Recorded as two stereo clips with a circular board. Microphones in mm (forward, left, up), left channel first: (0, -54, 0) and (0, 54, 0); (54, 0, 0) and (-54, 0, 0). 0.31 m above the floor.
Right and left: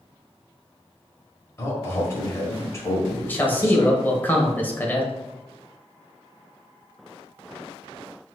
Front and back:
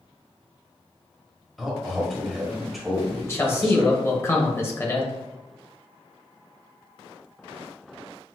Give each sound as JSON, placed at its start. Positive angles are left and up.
{"t": 1.6, "sound": "a man speaking", "azimuth_deg": -90, "distance_m": 1.5}
{"t": 3.2, "sound": "a man speaking", "azimuth_deg": -35, "distance_m": 1.0}